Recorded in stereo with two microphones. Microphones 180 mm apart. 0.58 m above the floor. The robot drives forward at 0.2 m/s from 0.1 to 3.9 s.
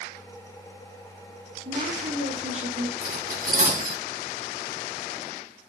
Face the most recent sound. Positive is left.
turn(degrees=-55)  # may be behind; listen again after turning